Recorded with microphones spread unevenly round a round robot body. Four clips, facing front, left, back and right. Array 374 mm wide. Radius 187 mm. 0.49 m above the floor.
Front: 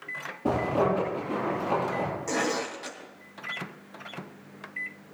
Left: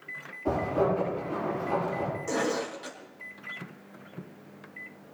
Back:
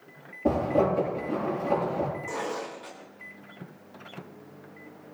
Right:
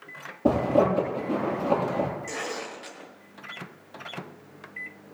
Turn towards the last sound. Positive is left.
turn(degrees=35)